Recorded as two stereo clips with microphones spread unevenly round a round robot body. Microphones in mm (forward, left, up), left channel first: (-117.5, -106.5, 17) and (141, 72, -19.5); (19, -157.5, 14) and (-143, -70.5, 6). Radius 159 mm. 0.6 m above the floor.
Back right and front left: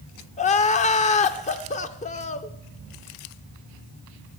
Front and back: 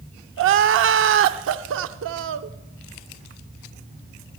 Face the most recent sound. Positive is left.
turn(degrees=145)